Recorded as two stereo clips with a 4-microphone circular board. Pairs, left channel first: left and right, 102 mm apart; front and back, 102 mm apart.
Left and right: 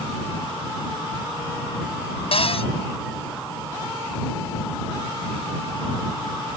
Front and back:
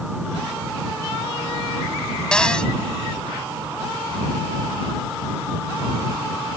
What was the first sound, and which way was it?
A cupboard door, 80° left.